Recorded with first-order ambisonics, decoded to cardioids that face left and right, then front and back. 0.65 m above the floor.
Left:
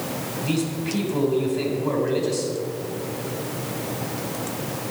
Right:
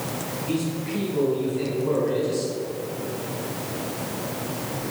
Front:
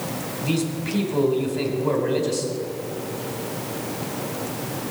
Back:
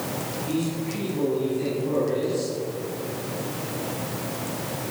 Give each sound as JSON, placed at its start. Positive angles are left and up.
{"t": 0.4, "sound": "a man speaking", "azimuth_deg": 25, "distance_m": 3.0}